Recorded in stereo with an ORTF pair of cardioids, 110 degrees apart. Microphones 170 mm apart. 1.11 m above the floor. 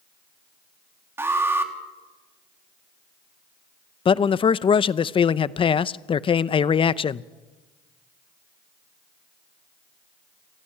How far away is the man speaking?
About 0.7 m.